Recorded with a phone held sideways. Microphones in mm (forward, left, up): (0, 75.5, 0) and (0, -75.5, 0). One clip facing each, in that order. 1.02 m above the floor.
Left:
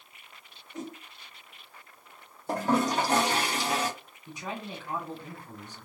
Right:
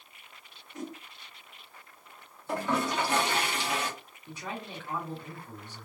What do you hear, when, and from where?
0.7 s a whoosh: 25° left (ahead or behind), 1.1 m
2.5 s a toilet flushing: 40° left (ahead or behind), 0.8 m
4.3 s a man speaking: 15° left (ahead or behind), 2.5 m